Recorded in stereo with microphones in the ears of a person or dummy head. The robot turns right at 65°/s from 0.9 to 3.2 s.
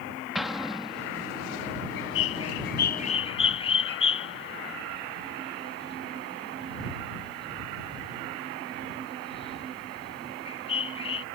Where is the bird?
70° left (ahead or behind); by 11.2 s 30° left (ahead or behind).